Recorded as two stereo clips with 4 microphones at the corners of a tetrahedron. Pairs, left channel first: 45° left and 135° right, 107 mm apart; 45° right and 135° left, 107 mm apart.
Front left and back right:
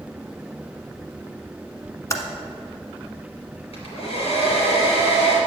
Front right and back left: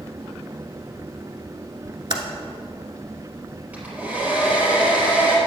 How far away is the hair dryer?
About 4 m.